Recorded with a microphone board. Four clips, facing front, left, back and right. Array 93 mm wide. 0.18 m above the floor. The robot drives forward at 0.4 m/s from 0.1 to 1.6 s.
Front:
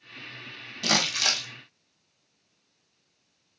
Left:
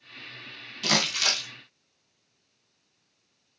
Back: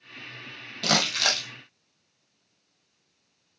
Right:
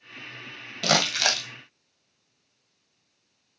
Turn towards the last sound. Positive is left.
turn(degrees=-120)